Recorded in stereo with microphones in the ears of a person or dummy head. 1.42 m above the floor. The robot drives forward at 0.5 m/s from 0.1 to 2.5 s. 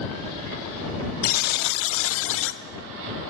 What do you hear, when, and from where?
1.2 s a buzzer: 45° left (ahead or behind), 0.7 m; by 2.6 s 55° left (ahead or behind), 0.6 m